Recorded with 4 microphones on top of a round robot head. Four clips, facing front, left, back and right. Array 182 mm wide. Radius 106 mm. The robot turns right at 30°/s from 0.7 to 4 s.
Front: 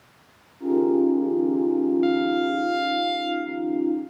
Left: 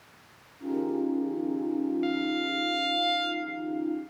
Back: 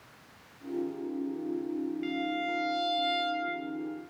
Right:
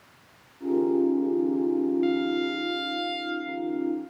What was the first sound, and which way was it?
A violin, straight ahead.